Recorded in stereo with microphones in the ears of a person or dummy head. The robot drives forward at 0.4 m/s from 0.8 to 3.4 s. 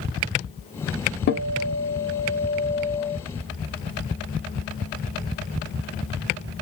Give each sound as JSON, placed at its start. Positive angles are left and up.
{"t": 1.3, "sound": "a guitar", "side_deg": 55, "distance_m": 0.5}